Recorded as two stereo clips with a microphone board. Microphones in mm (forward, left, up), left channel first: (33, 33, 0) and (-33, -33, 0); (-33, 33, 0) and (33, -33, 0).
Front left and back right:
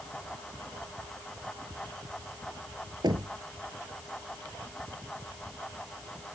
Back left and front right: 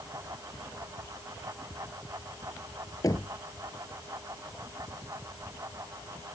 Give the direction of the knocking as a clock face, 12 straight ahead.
6 o'clock.